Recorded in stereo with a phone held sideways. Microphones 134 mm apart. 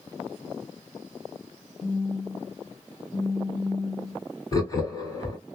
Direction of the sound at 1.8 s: 45° left (ahead or behind).